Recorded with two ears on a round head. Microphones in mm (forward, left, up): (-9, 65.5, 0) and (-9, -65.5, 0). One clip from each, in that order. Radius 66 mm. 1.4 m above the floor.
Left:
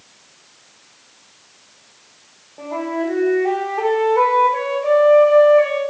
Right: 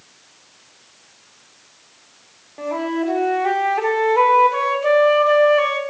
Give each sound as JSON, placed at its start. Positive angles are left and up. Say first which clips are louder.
{"t": 2.6, "sound": "a flute", "louder": "right 1 dB", "side_deg": -65, "distance_m": 1.2}